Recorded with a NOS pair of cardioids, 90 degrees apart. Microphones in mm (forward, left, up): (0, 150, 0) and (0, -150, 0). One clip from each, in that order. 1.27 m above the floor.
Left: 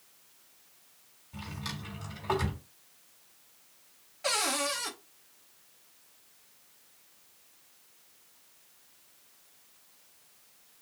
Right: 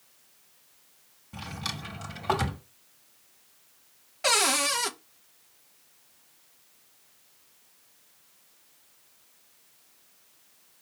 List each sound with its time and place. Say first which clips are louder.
1.3 s a drawer: right 5 dB; 45° right, 1.5 m
4.2 s a cupboard door: right 6 dB; 40° right, 0.7 m